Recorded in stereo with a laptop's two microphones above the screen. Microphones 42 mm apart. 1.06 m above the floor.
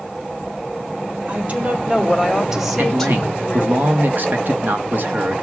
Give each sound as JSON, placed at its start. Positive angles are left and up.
{"t": 1.3, "sound": "a woman speaking", "side_deg": -40, "distance_m": 3.5}
{"t": 2.8, "sound": "a man speaking", "side_deg": -55, "distance_m": 1.1}